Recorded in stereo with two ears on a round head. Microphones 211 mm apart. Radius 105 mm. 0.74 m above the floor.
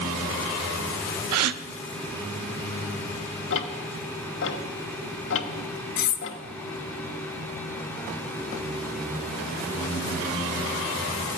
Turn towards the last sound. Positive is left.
turn(degrees=40)  # may be behind; listen again after turning